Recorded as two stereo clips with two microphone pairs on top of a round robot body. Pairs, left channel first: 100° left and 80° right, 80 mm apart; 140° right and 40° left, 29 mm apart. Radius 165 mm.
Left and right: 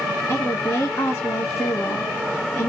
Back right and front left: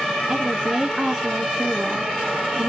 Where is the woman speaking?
75° left, 1.0 m.